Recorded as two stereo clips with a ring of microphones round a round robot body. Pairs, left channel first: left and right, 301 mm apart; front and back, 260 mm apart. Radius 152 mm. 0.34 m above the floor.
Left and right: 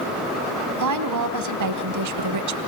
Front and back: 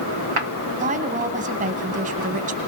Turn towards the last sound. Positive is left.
turn(degrees=-115)